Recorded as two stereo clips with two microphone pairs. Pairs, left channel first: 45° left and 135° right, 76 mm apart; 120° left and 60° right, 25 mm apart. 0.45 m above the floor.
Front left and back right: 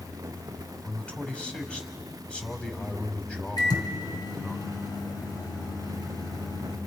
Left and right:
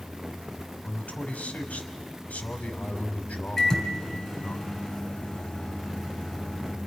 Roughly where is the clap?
No clap in this recording.